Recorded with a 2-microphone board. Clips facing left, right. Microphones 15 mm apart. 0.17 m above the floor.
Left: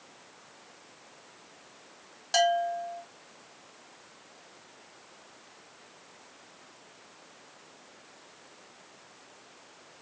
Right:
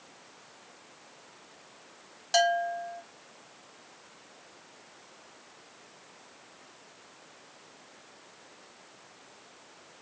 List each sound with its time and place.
2.3 s a bell: centre (ahead or behind), 0.7 m